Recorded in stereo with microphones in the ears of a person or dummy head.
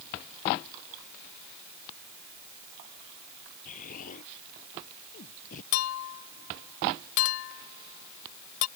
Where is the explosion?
50° left (ahead or behind).